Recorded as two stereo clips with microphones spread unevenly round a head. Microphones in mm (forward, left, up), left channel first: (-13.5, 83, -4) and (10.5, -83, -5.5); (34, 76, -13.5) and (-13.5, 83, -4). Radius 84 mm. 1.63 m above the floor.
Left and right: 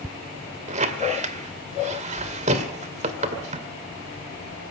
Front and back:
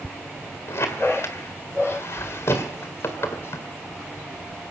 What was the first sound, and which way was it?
A squeak, 45° right.